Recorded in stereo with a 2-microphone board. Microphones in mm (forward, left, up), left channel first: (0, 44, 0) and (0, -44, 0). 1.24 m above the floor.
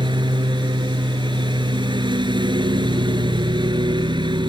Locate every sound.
0.0 s a lawn mower: 65° right (ahead or behind)